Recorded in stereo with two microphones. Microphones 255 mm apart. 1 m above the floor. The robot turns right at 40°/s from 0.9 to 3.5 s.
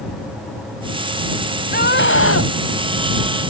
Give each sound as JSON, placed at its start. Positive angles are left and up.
{"t": 1.7, "sound": "a scream", "azimuth_deg": 35}